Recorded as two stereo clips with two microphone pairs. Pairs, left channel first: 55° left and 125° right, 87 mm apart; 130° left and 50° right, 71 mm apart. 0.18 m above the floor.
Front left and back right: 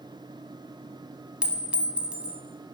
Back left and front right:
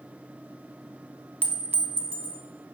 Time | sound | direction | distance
1.4 | a clink | 70° right | 0.7 m